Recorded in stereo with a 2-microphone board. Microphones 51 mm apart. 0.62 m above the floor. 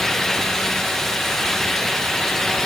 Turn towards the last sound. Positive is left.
No sound to turn to.